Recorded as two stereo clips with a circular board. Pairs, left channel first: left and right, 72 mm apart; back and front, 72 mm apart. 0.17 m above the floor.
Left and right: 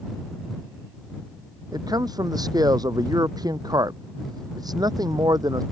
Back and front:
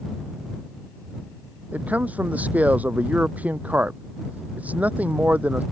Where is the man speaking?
70° right.